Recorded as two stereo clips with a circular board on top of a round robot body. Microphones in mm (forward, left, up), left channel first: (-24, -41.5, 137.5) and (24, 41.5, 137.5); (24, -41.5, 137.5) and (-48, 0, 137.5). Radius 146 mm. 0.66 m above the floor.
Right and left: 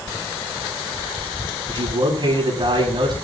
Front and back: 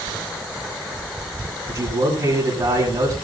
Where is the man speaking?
105° left, 7 m.